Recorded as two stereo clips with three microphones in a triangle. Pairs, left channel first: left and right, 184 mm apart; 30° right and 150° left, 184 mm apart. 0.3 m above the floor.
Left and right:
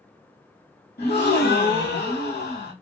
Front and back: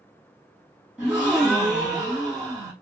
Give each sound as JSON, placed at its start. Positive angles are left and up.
{"t": 1.0, "sound": "a gasp", "azimuth_deg": 65, "distance_m": 2.5}